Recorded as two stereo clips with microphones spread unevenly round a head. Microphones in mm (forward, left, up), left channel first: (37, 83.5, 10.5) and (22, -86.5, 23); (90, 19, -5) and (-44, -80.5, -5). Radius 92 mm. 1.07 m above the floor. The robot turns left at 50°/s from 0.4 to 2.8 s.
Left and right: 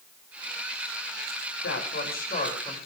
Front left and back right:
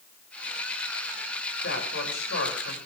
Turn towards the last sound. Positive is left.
turn(degrees=15)